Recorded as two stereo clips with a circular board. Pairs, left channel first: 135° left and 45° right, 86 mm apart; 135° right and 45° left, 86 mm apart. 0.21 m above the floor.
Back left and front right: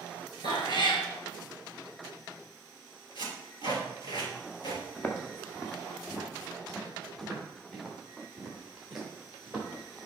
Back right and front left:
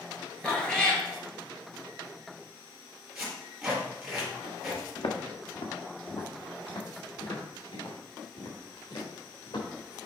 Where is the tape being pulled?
130° left, 3.5 m.